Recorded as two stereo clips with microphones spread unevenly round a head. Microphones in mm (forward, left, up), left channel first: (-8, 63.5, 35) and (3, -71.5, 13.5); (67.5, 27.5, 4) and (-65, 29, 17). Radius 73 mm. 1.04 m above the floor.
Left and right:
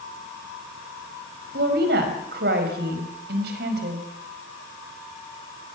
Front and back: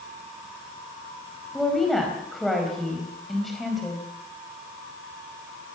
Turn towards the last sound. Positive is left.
turn(degrees=-90)